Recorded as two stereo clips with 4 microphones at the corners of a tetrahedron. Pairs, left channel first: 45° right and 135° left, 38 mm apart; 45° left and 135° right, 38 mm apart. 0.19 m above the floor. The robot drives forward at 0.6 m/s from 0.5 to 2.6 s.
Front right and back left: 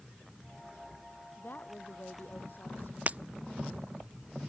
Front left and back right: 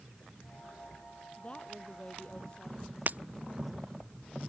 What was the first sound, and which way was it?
A woman speaking, 10° right.